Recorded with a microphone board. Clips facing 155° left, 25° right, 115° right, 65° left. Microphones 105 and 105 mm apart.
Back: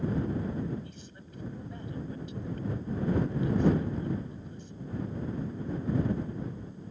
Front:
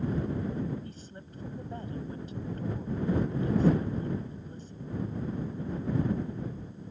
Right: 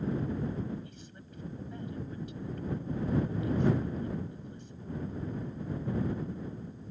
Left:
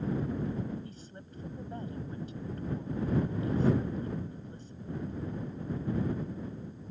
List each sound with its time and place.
0.8 s a woman speaking: 20° left